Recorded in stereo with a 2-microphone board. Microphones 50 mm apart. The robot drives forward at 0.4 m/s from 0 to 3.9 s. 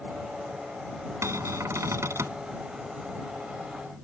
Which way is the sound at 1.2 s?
70° right (ahead or behind).